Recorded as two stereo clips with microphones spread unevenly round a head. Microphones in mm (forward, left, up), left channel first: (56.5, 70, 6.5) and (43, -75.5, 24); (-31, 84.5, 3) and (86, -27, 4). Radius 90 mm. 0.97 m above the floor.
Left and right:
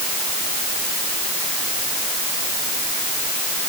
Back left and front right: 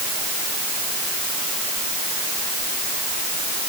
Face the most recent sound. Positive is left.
No sound to turn to.